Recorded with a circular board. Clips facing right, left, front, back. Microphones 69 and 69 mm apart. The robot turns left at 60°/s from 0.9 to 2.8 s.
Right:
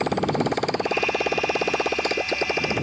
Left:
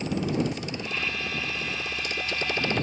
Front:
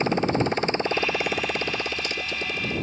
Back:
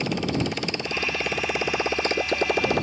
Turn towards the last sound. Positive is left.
turn(degrees=-170)